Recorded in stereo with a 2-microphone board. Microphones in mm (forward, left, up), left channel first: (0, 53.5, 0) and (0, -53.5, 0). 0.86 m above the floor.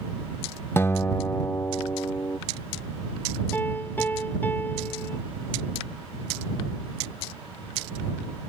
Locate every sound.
0.8 s a guitar: 25° left (ahead or behind)
3.5 s a piano: 15° left (ahead or behind)